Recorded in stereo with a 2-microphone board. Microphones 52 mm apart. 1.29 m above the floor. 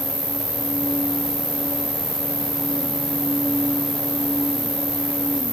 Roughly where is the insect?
Right.